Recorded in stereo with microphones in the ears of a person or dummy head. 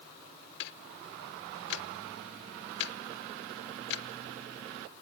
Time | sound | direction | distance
0.6 | ticking | 75° left (ahead or behind) | 0.9 m